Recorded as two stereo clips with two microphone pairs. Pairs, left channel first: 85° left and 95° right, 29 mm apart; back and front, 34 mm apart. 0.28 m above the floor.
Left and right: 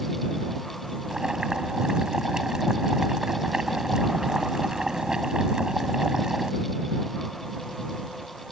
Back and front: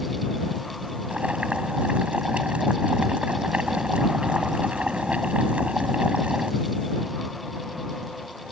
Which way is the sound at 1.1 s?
35° right.